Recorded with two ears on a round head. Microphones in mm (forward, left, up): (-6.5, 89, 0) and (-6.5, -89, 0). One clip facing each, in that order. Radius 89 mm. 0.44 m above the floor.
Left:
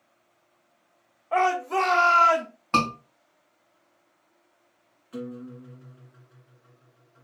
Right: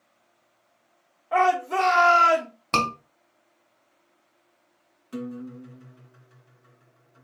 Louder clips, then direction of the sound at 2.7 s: Left 1 dB; 50° right (ahead or behind).